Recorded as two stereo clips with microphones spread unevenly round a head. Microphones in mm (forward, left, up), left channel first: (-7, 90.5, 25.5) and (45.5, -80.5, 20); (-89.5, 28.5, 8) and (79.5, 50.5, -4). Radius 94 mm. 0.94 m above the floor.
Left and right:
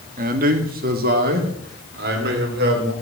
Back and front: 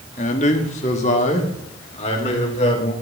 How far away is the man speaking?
About 1.4 m.